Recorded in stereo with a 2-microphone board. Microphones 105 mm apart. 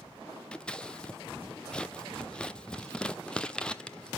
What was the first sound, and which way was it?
Scissors, 10° left (ahead or behind).